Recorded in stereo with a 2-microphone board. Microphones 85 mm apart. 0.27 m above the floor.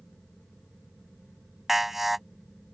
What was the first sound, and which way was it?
An alarm, 5° right (ahead or behind).